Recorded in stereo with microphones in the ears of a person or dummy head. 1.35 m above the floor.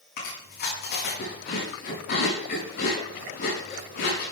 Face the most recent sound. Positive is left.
turn(degrees=55)  # may be behind; listen again after turning